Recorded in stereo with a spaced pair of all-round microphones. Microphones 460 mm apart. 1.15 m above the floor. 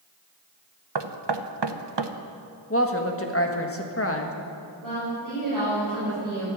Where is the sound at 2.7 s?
30° left (ahead or behind), 1.5 m.